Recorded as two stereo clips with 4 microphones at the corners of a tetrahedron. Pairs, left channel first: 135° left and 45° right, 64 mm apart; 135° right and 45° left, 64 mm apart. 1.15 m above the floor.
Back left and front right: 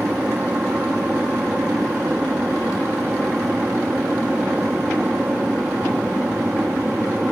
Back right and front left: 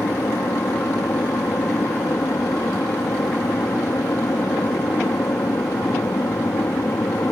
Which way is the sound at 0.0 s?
105° right.